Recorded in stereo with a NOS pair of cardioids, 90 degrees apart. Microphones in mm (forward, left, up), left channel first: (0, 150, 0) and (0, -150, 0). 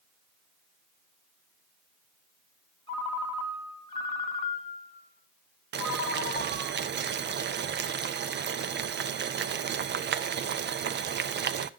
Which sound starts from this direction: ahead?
A ringtone, at 2.9 s.